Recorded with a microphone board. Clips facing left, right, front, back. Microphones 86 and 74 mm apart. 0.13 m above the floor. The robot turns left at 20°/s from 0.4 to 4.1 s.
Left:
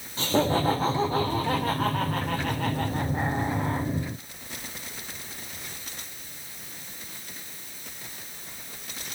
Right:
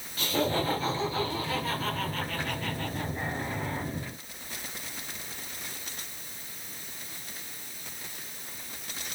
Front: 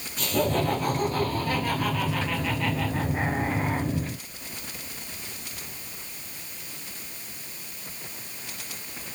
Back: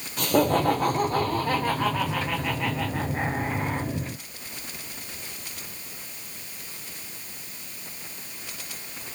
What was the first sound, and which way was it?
Laughter, 150° left.